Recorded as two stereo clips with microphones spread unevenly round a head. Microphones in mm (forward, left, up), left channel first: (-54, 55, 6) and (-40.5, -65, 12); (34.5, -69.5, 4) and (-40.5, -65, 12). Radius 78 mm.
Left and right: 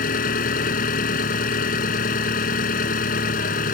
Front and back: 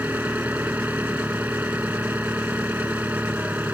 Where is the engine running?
95° left.